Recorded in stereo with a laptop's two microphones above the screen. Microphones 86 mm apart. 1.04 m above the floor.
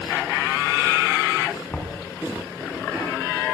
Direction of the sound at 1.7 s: 20° left (ahead or behind).